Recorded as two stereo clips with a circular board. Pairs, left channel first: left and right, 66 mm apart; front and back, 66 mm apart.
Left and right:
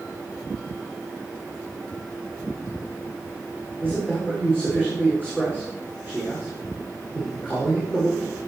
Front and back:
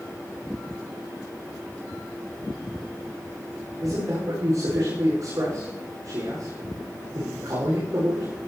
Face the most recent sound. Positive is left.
turn(degrees=155)